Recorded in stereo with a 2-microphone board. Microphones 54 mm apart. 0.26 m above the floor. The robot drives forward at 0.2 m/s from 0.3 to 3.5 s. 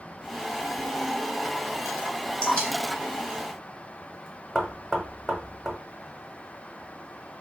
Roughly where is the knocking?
Centre.